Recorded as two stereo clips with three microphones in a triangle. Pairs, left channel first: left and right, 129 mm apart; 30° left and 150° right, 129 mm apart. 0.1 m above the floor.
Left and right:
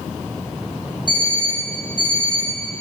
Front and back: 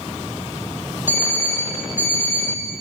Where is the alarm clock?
40° left, 2.5 m.